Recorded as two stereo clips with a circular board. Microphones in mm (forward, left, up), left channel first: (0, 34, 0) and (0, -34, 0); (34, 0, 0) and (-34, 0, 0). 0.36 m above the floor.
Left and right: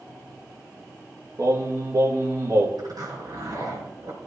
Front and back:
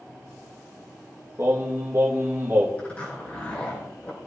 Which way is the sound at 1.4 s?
130° right.